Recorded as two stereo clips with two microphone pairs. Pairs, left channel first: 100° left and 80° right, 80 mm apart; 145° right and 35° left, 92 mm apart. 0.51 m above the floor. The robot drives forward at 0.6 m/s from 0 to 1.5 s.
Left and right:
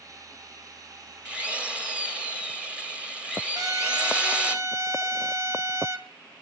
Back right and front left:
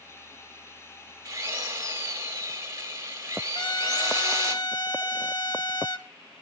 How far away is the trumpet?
About 1.5 m.